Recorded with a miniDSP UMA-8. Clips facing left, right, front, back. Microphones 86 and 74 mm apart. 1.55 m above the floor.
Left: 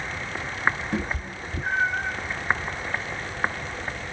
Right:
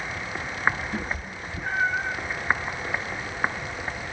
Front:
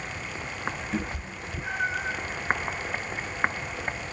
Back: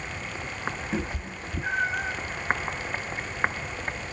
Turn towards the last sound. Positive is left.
turn(degrees=170)